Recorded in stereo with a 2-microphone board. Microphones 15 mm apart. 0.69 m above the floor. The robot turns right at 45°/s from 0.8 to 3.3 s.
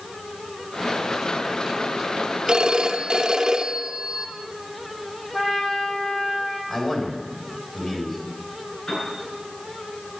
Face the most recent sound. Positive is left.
turn(degrees=85)